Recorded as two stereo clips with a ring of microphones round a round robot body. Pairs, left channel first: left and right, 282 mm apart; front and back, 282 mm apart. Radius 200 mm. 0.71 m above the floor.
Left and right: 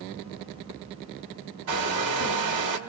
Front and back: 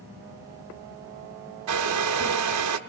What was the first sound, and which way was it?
A hair dryer, 130° right.